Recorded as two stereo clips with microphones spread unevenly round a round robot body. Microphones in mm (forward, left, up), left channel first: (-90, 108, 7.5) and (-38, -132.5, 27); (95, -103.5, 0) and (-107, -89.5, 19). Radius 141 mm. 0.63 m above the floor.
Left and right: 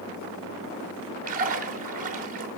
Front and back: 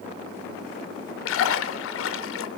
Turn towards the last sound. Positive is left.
turn(degrees=-15)